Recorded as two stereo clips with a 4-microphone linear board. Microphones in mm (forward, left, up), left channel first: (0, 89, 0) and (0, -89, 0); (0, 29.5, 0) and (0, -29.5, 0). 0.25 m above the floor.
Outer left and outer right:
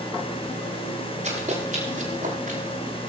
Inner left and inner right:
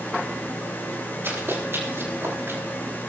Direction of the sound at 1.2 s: 40° right (ahead or behind).